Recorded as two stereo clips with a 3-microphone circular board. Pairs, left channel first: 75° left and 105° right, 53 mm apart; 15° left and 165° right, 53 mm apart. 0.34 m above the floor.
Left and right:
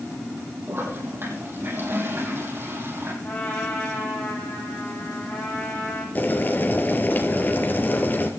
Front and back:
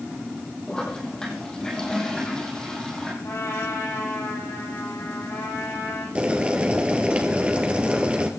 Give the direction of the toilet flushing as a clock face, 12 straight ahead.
2 o'clock.